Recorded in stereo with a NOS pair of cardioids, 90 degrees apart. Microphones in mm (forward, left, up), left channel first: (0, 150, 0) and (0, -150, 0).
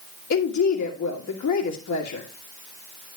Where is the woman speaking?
60° left, 2 m.